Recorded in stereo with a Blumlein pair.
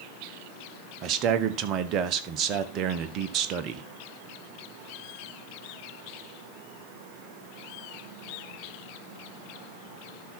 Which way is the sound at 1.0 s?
35° right.